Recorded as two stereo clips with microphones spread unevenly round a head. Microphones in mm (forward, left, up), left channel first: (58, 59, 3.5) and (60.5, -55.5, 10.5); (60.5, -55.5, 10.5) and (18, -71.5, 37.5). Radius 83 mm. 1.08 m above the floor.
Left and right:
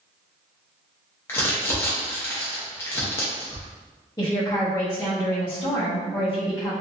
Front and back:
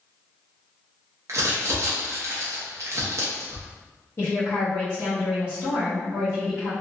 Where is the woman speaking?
30° left, 0.9 m.